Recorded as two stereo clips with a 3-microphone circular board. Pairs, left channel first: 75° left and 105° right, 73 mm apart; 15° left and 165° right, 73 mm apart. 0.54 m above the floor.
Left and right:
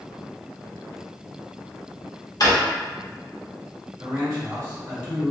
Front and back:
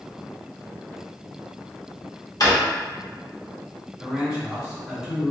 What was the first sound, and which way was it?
A drawer, 45° left.